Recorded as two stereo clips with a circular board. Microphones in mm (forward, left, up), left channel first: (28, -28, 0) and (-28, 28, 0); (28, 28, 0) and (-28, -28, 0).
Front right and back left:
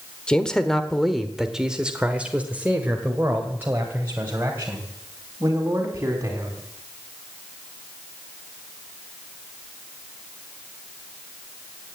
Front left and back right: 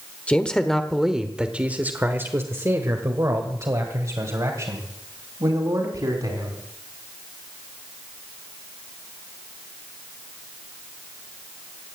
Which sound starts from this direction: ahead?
A man speaking, at 0.3 s.